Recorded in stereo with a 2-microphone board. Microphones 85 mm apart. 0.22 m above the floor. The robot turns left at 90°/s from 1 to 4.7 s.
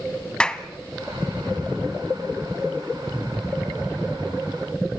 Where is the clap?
10° left (ahead or behind), 1.1 m.